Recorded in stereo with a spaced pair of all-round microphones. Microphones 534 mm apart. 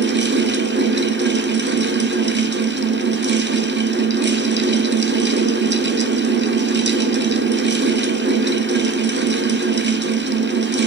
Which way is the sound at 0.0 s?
20° right (ahead or behind).